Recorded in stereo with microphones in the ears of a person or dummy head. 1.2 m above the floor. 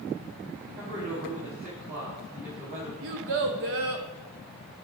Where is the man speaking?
35° right (ahead or behind), 2.5 m.